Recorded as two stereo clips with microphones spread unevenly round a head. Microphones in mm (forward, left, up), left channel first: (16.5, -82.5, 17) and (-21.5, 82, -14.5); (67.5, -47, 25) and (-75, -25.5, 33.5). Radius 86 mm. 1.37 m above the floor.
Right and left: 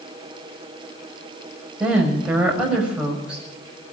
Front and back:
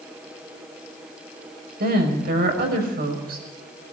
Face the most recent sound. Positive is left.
turn(degrees=-170)